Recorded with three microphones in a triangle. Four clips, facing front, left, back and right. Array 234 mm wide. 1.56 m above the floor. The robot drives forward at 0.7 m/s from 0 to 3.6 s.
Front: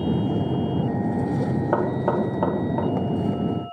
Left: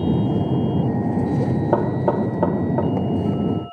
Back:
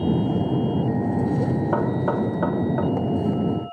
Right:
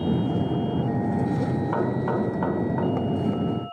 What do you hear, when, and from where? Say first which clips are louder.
1.7 s knocking: left 7 dB, even; 85° left, 2.5 m; by 2.9 s 105° left, 2.5 m